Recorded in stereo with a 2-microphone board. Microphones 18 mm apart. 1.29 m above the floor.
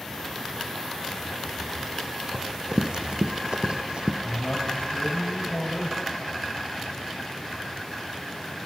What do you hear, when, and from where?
2.3 s running footsteps: 40° right (ahead or behind), 3 m; by 4.1 s 60° right (ahead or behind), 2.5 m
4.2 s a man speaking: 80° left, 7 m